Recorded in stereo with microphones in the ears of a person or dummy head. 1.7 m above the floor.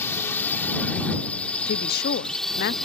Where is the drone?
10° left (ahead or behind); by 2.9 s centre (ahead or behind).